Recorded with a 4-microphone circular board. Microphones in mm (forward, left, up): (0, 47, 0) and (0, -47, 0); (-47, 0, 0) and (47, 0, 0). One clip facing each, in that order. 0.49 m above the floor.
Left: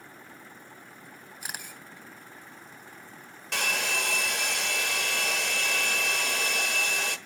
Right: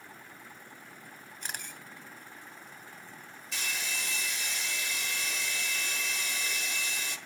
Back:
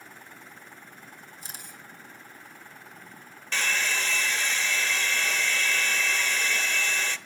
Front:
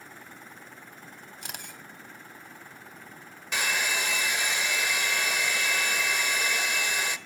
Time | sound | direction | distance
1.4 | a camera shutter | 10° left | 3 m
3.5 | a hair dryer | 75° left | 1.0 m